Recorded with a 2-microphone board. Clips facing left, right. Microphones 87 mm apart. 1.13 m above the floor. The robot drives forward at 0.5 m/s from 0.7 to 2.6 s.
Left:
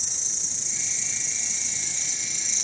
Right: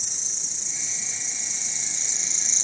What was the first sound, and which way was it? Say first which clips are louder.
An insect: left 1 dB; 10° right (ahead or behind).